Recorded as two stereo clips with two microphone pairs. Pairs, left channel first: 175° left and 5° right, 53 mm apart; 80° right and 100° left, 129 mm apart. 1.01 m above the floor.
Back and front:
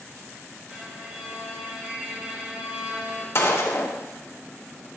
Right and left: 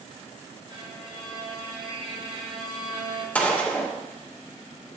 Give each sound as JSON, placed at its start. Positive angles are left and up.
{"t": 0.7, "sound": "a violin", "azimuth_deg": 60, "distance_m": 1.4}
{"t": 3.4, "sound": "a gunshot", "azimuth_deg": -160, "distance_m": 0.9}